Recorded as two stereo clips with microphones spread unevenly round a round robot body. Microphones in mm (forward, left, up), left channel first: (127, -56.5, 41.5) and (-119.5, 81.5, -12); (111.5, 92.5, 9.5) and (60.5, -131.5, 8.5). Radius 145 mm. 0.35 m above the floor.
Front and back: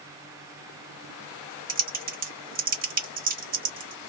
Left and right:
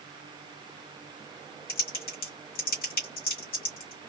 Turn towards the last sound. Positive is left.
turn(degrees=115)